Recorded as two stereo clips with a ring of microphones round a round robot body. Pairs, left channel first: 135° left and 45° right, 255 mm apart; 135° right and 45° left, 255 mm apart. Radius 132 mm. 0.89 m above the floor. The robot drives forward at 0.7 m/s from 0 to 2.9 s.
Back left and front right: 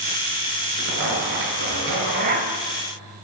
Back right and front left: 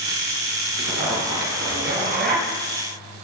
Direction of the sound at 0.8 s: Straight ahead.